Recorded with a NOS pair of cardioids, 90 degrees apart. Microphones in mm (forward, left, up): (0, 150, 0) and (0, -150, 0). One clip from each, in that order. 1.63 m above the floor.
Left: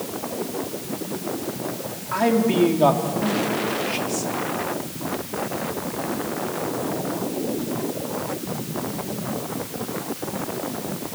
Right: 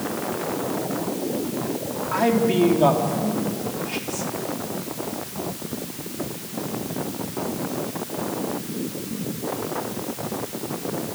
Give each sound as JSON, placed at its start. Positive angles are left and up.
{"t": 2.1, "sound": "a man speaking", "azimuth_deg": 0, "distance_m": 4.0}